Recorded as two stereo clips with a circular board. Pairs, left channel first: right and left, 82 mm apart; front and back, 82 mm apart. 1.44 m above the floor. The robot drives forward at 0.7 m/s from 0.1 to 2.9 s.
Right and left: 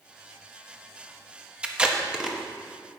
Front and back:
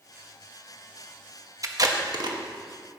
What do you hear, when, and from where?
1.6 s tape being pulled: 160° left, 0.9 m; by 2.4 s 170° left, 1.3 m